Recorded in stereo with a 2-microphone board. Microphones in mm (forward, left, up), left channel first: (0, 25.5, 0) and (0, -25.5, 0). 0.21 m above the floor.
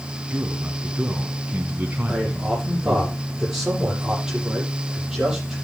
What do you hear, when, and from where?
0.3 s a man speaking: 25° right (ahead or behind), 2.5 m
2.1 s a man speaking: 10° right (ahead or behind), 8 m